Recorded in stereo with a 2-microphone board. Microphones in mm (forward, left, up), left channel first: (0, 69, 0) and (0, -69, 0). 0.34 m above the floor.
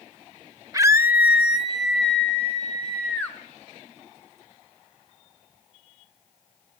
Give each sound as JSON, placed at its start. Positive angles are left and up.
{"t": 0.7, "sound": "a scream", "side_deg": -25, "distance_m": 0.9}